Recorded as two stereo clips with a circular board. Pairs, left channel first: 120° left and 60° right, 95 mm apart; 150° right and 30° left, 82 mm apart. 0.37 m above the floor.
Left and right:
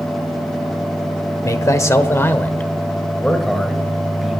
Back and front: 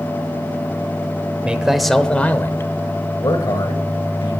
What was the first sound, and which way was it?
A man speaking, 95° left.